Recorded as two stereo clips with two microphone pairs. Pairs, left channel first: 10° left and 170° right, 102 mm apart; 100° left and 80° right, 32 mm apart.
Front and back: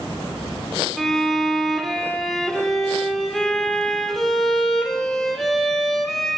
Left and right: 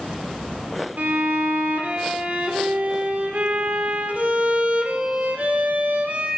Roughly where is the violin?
Right.